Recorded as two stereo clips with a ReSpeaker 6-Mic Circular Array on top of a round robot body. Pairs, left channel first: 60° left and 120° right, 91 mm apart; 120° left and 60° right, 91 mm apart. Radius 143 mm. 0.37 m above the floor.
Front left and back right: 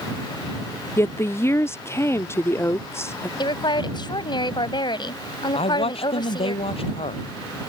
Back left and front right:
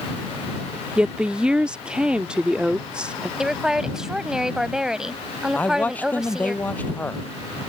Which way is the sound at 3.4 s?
25° left.